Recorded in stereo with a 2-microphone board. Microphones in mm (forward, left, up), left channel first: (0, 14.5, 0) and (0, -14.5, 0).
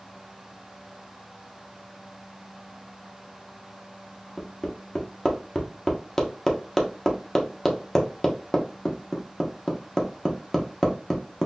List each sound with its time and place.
4.4 s hammering: 15° left (ahead or behind), 0.7 m